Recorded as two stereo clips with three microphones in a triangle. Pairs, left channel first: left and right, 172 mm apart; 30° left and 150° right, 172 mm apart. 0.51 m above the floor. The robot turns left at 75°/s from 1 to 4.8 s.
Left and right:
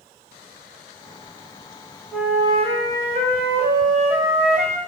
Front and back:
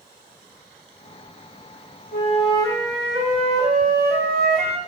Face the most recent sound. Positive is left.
turn(degrees=160)